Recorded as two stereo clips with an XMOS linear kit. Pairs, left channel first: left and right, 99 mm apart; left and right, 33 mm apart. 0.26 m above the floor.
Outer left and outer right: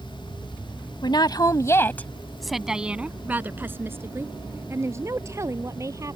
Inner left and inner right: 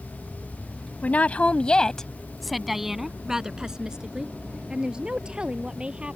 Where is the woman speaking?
50° left (ahead or behind); by 6.2 s 30° right (ahead or behind).